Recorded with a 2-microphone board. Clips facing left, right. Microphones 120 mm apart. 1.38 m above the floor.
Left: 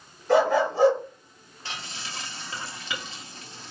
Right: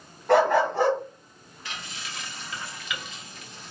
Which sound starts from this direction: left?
Frying, at 1.6 s.